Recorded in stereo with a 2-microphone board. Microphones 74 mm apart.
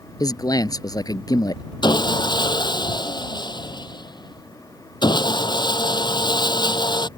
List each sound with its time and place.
0.2 s a man speaking: 55° left (ahead or behind)
1.8 s sawing: 75° left (ahead or behind)